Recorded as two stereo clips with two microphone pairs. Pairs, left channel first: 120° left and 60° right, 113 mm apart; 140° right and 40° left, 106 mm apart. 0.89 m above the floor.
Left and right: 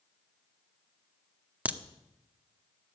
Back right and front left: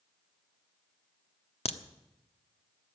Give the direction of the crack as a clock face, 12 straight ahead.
4 o'clock.